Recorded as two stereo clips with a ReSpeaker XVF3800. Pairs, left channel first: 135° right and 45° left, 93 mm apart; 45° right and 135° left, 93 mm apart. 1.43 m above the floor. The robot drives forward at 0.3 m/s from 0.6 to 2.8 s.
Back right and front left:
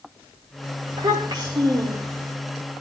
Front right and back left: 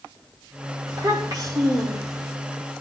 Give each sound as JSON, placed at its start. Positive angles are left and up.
{"t": 0.9, "sound": "a child speaking", "azimuth_deg": 85, "distance_m": 4.0}